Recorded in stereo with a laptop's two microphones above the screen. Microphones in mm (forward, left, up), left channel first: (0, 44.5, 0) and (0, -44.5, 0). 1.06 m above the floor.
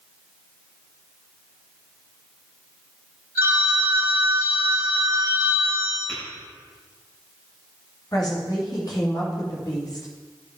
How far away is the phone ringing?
About 1.2 m.